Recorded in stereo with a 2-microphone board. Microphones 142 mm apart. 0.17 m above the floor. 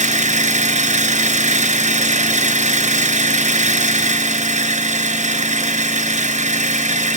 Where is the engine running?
60° right (ahead or behind), 1.8 m.